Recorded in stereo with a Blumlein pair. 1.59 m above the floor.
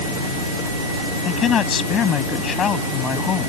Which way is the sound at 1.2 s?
25° left.